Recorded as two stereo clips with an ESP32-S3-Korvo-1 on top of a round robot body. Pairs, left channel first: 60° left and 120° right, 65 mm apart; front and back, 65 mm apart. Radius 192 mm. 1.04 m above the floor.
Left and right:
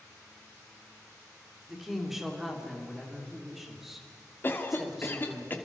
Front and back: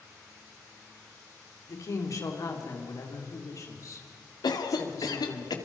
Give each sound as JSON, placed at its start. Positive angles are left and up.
{"t": 1.7, "sound": "a woman speaking", "azimuth_deg": -35, "distance_m": 4.0}
{"t": 4.4, "sound": "a cough", "azimuth_deg": 0, "distance_m": 2.5}